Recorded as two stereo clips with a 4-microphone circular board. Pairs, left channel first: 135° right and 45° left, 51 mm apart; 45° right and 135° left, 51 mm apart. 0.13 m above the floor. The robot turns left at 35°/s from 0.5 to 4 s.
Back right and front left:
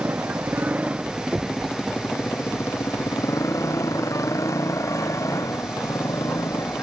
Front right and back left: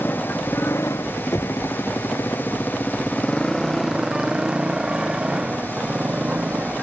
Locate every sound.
0.0 s a motorcycle: 5° right; by 6.8 s 155° right
1.3 s knocking: 20° right; by 1.6 s 30° right